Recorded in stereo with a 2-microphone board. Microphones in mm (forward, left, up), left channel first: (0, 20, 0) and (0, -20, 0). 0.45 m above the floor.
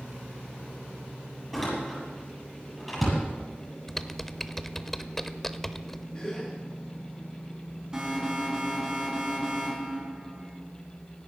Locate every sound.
1.5 s a door slam: 5° left (ahead or behind), 8 m
3.9 s typing on a keyboard: 10° left (ahead or behind), 0.6 m
6.1 s a gasp: 25° left (ahead or behind), 8.5 m
7.9 s an alarm: 20° right (ahead or behind), 4.5 m